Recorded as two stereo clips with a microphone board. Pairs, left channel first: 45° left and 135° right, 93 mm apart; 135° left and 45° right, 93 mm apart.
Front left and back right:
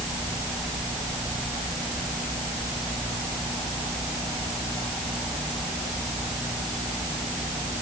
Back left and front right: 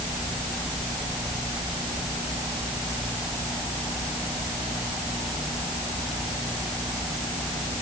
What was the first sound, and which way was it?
Only background noise.